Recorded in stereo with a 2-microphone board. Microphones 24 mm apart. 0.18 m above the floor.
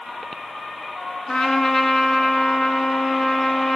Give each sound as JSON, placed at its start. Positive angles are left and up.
{"t": 1.3, "sound": "a trumpet", "side_deg": 45, "distance_m": 1.8}